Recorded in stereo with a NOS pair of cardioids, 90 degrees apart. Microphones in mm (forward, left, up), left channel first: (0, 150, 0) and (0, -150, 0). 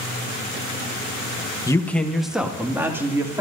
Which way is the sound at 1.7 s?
10° left.